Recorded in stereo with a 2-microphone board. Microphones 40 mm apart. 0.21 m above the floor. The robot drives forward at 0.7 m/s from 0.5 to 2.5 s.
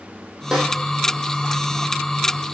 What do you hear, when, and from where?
0.5 s a snare drum: 15° right (ahead or behind), 5 m